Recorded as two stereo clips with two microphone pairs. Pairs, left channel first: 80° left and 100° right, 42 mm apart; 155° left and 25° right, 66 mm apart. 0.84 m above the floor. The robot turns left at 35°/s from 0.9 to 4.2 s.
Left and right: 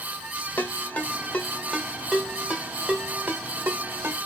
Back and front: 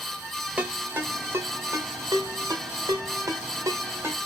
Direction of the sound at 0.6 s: 35° left.